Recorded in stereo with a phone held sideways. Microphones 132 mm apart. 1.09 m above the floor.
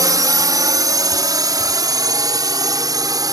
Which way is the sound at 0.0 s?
30° right (ahead or behind).